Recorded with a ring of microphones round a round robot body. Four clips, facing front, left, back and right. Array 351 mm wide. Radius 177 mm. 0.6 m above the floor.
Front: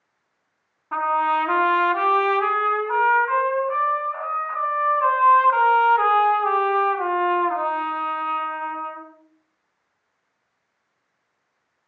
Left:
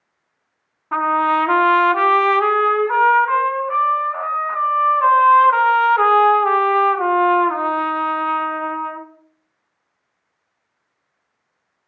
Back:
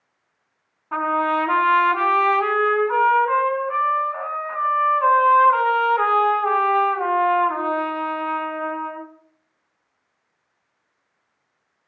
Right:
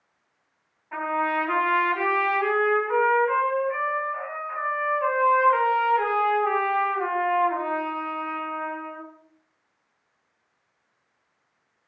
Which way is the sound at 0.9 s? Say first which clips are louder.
Left 8 dB, even; 90° left.